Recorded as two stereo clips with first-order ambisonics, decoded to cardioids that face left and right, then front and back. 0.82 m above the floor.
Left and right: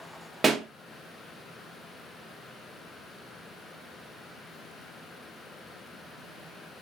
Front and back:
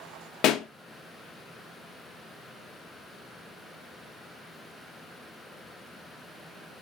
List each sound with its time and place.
0.4 s a pop: 15° right, 0.5 m